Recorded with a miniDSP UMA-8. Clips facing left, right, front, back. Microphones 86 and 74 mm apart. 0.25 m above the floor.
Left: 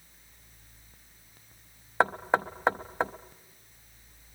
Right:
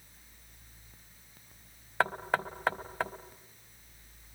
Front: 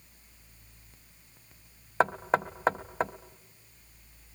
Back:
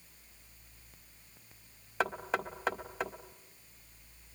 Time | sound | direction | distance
2.0 | knocking | 35° left | 0.8 m